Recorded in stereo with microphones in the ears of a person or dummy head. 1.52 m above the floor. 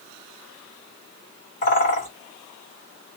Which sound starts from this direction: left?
A bird, at 1.6 s.